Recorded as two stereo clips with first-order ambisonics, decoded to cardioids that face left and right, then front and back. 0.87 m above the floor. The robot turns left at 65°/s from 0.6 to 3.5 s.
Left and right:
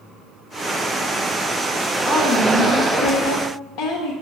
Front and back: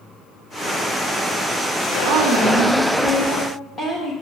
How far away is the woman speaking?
About 0.9 m.